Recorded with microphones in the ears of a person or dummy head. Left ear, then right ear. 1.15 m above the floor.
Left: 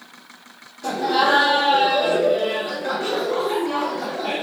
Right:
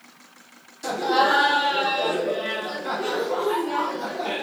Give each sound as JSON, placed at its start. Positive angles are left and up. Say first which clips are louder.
{"t": 0.8, "sound": "laughter", "louder": "left 1 dB", "side_deg": -40, "distance_m": 0.9}